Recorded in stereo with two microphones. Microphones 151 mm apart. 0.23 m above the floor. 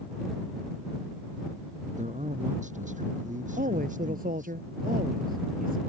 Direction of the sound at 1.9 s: 55° right (ahead or behind).